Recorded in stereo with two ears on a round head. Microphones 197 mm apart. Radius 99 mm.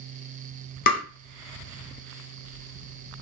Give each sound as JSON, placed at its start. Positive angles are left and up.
{"t": 0.9, "sound": "tapping", "side_deg": 40, "distance_m": 0.7}